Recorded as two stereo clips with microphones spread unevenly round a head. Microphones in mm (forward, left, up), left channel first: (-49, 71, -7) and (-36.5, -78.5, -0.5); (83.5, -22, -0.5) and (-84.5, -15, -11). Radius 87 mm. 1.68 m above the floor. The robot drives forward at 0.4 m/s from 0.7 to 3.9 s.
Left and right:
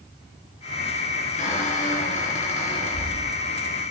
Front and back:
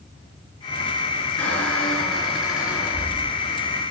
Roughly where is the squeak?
Left.